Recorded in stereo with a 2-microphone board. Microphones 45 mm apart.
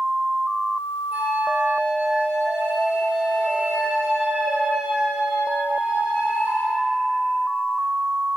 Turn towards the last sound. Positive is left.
turn(degrees=-30)  # may be behind; listen again after turning